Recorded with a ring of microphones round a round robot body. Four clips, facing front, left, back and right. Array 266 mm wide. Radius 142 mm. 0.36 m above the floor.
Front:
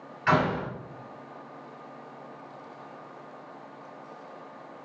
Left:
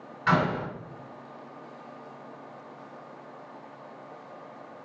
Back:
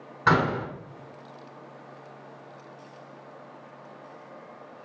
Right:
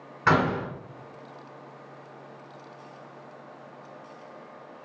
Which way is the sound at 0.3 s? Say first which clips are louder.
Right 2 dB, back 1 dB; 140° right.